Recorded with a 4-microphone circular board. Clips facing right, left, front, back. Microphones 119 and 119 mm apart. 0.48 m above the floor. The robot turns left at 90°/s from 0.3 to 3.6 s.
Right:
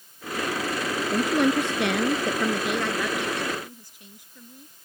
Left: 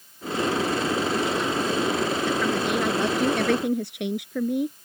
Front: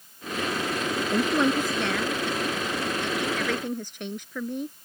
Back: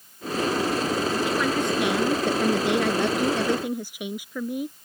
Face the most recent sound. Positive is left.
turn(degrees=100)